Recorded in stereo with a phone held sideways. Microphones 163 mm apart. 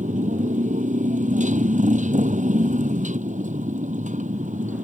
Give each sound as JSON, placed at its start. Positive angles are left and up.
{"t": 0.0, "sound": "a motorcycle", "side_deg": -50}